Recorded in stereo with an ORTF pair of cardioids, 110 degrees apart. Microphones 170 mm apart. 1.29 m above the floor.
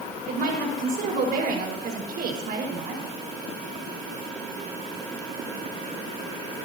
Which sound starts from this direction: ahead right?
A woman speaking, at 0.3 s.